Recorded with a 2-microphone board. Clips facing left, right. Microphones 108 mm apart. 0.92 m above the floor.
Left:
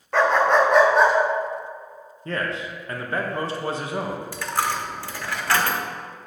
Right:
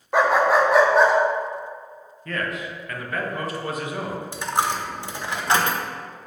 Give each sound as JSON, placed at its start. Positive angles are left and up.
{"t": 0.1, "sound": "a dog barking", "side_deg": -15, "distance_m": 0.6}
{"t": 2.2, "sound": "a man speaking", "side_deg": 30, "distance_m": 0.8}
{"t": 4.3, "sound": "a dropped coin", "side_deg": -20, "distance_m": 0.5}